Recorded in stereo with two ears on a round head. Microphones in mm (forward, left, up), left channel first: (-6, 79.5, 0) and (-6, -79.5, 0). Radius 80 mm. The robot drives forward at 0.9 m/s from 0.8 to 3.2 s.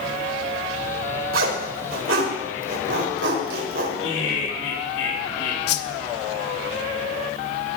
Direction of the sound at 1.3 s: 80° right.